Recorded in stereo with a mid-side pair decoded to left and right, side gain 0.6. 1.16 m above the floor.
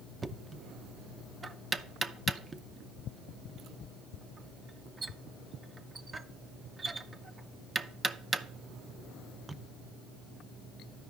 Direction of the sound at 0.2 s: 20° right.